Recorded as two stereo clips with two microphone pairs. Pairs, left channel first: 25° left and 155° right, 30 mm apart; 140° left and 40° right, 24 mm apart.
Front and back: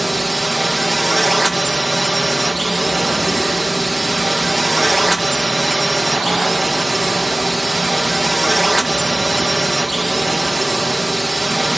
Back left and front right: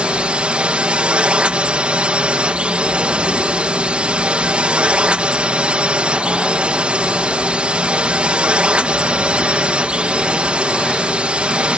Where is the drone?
60° right.